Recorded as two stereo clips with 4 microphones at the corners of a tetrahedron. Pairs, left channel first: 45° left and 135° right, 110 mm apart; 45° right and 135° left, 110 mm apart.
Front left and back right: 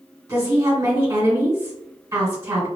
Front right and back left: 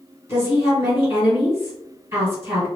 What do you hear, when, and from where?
0.3 s a woman speaking: straight behind, 1.9 m